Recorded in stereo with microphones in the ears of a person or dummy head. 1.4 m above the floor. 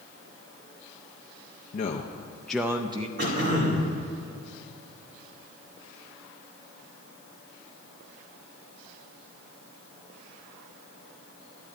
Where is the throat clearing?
65° right (ahead or behind), 3 m.